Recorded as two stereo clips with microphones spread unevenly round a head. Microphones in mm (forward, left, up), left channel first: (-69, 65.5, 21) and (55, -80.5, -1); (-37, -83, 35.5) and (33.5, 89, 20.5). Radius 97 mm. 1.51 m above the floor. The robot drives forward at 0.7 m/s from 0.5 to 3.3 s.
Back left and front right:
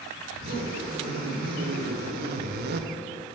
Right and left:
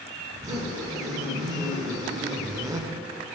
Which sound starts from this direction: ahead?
A zipper, at 0.3 s.